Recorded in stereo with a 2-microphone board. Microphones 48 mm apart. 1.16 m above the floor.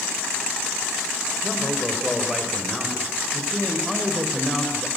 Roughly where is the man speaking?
Centre.